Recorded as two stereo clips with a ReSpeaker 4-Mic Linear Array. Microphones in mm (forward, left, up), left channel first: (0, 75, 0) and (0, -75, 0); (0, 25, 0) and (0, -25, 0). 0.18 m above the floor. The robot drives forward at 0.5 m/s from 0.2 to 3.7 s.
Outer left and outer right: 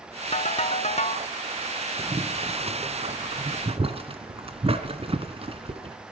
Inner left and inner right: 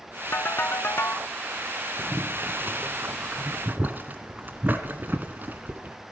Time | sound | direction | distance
0.3 | a ringtone | 45° left (ahead or behind) | 1.1 m
2.0 | boiling | 45° right (ahead or behind) | 1.6 m